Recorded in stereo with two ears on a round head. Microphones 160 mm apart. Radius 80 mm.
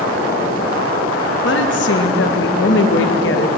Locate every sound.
1.4 s a woman speaking: 70° left (ahead or behind), 1.0 m